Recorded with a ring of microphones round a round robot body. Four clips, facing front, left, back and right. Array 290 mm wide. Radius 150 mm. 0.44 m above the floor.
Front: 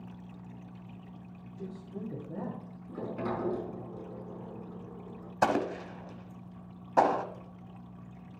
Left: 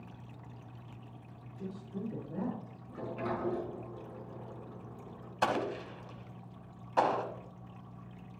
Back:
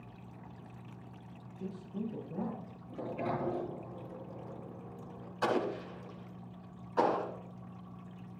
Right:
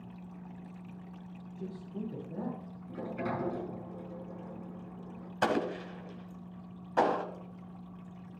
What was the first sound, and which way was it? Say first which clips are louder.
A man speaking: even, back 1 dB; 15° left.